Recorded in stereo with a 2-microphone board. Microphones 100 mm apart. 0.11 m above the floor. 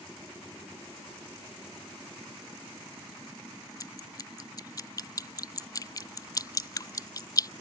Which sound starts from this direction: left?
Dripping, at 3.8 s.